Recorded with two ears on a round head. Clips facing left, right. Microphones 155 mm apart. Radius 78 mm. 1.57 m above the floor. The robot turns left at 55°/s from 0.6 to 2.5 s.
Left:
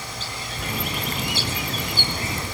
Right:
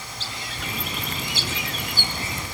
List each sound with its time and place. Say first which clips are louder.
0.2 s a bird: even; 60° right, 2.5 m; by 2.5 s 165° right, 2.5 m